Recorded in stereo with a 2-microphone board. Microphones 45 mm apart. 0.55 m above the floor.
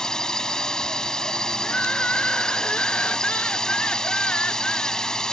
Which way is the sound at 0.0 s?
15° left (ahead or behind).